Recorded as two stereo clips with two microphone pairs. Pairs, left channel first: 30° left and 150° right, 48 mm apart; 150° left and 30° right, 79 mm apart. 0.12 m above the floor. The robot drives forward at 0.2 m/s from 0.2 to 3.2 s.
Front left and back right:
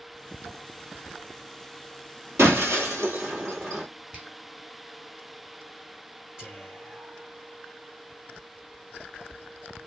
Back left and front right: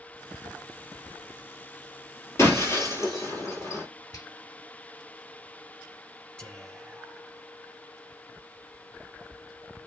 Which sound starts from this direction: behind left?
A finger snap, at 4.1 s.